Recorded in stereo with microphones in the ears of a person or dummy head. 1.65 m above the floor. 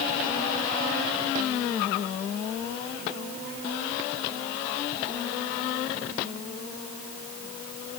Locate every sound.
Only background noise.